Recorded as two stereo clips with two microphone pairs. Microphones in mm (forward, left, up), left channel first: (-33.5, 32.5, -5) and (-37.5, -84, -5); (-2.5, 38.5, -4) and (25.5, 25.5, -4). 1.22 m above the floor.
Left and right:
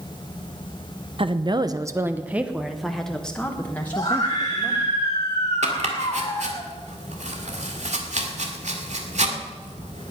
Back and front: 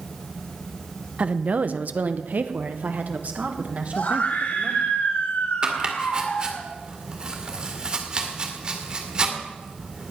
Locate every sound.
1.2 s a woman speaking: 65° right, 0.9 m; by 4.9 s 20° left, 2 m
3.9 s a scream: 140° left, 6 m
5.6 s chopping: 85° right, 2 m